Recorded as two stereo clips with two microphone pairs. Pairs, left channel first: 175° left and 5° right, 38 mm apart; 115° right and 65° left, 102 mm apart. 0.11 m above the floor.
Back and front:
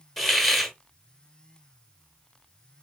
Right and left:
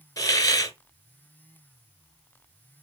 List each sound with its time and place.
0.2 s a hiss: 100° right, 0.7 m